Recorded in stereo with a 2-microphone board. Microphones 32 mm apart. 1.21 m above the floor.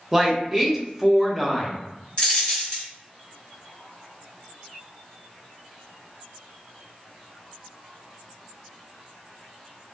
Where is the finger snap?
No finger snap in this recording.